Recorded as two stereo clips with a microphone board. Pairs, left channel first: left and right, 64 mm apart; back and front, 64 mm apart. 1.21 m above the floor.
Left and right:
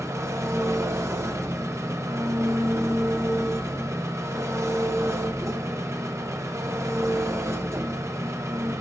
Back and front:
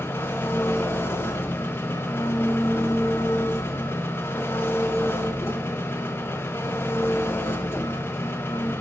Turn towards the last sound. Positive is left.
turn(degrees=-130)